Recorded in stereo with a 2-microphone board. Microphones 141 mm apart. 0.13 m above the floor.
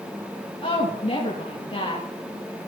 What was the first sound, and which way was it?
A woman speaking, 40° left (ahead or behind).